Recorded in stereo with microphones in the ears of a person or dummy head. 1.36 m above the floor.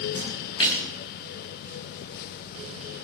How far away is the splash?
About 6 m.